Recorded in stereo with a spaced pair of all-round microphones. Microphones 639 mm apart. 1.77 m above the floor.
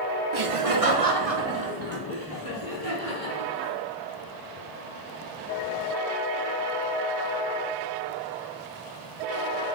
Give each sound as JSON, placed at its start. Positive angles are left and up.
{"t": 0.3, "sound": "laughter", "side_deg": -50, "distance_m": 0.6}